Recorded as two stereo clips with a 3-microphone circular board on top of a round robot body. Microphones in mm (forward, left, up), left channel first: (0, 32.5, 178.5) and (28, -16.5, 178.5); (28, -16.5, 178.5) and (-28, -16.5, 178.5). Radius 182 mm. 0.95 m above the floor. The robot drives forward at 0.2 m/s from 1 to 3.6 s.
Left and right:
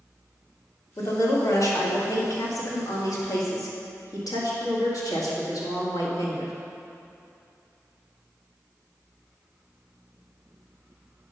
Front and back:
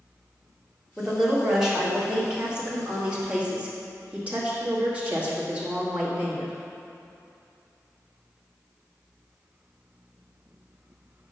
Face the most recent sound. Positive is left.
turn(degrees=110)